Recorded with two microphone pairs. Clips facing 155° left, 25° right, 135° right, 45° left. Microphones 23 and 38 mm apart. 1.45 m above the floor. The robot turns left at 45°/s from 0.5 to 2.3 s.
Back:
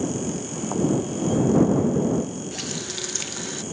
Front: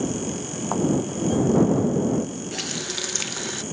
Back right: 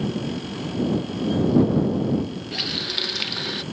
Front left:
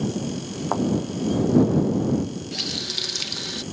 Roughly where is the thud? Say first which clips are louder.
Even, front left 3 dB; ahead left.